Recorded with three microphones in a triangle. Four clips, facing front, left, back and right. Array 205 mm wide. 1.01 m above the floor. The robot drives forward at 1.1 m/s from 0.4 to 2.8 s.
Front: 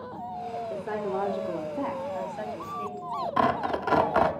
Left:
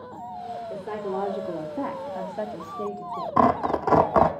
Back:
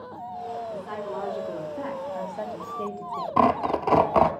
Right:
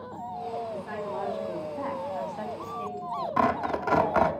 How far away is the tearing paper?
About 0.6 m.